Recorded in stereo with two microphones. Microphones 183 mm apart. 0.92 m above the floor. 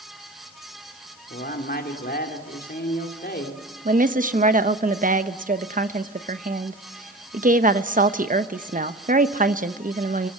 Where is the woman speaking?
50° right (ahead or behind), 1.0 m.